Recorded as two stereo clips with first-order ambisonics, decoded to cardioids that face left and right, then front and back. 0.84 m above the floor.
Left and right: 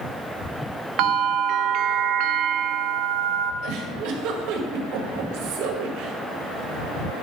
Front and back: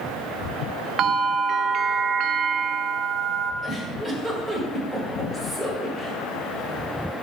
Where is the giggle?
85° right, 1.8 m.